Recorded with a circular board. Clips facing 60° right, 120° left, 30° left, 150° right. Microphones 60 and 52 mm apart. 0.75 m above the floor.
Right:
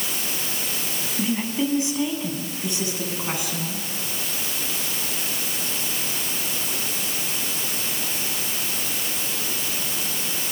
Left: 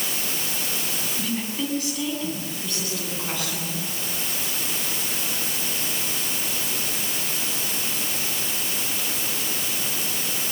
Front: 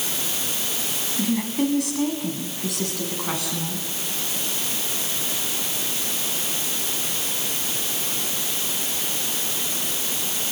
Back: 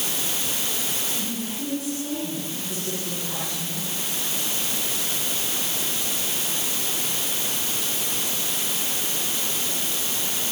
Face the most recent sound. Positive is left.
turn(degrees=10)